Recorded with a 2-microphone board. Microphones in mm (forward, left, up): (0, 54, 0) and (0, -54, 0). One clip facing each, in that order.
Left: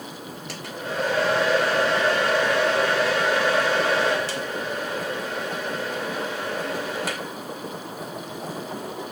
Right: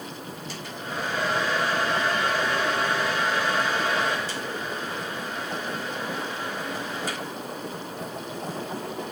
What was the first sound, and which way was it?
A hair dryer, 80° left.